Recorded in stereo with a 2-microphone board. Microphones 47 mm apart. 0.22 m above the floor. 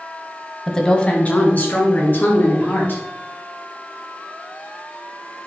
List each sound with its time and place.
0.7 s a woman speaking: 5° left (ahead or behind), 1.1 m; by 3.0 s 50° left (ahead or behind), 4 m